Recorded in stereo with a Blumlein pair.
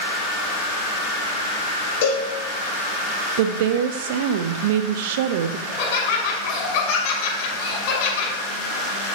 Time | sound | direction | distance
2.0 | a cowbell | 45° left | 4.5 m
3.4 | a woman speaking | 50° right | 0.8 m
5.7 | laughter | 50° left | 5.5 m